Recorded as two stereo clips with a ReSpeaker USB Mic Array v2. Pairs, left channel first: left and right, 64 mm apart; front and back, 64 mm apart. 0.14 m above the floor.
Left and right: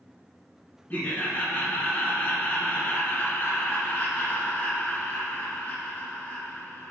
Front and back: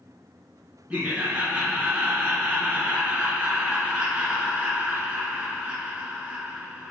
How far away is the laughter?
About 1.3 m.